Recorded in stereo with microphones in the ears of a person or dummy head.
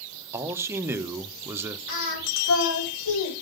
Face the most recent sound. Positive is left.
turn(degrees=70)  # may be behind; listen again after turning